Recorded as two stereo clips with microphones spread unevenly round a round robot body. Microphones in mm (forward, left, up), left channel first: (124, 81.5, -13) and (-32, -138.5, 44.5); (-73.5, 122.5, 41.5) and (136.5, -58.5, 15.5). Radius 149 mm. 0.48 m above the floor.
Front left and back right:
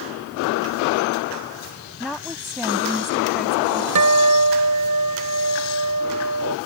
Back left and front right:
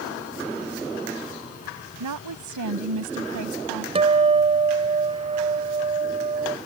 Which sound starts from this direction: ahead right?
A woman speaking, at 2.0 s.